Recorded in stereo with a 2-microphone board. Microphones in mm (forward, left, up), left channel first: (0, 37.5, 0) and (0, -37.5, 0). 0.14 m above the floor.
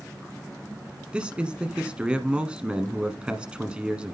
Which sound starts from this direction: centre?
A man speaking, at 1.1 s.